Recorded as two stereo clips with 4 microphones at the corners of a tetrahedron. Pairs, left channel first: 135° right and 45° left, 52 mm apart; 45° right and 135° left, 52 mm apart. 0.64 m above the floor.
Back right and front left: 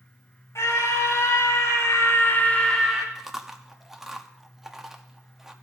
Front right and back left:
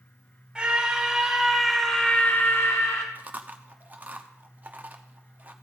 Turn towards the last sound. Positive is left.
turn(degrees=120)